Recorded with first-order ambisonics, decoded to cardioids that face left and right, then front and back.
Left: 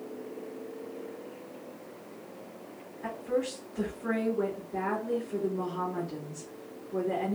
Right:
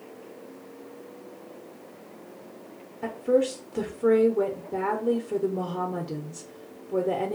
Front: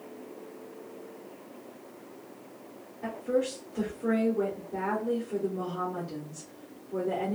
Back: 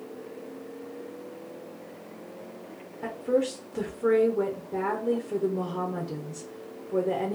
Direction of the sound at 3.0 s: 120° right.